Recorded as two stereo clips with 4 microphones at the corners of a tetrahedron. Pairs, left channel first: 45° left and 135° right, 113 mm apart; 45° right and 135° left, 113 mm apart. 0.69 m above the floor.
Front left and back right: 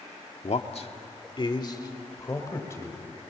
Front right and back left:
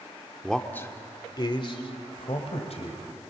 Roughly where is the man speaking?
Ahead left.